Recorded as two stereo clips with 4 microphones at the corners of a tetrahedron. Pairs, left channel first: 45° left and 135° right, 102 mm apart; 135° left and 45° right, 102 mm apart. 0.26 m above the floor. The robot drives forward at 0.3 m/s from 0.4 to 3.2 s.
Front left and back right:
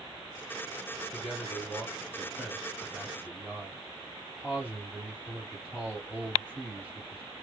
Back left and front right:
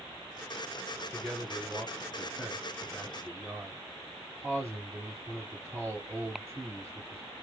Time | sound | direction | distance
1.1 | a man speaking | 50° right | 1.6 m